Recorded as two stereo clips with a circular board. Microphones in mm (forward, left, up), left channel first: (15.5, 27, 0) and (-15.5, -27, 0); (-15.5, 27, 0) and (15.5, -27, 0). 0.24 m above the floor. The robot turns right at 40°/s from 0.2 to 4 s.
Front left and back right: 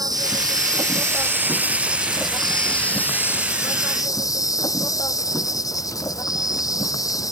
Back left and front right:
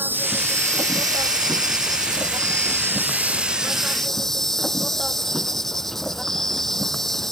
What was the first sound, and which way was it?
An insect, 115° right.